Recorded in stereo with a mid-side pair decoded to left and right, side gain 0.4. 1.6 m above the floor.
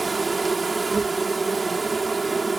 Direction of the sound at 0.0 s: 25° right.